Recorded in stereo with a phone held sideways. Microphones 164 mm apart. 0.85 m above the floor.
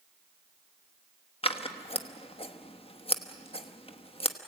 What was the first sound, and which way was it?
Scissors, 35° left (ahead or behind).